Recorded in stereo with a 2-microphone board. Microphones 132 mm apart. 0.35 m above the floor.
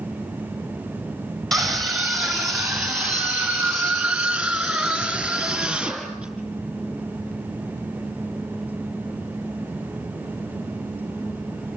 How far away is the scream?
About 4 m.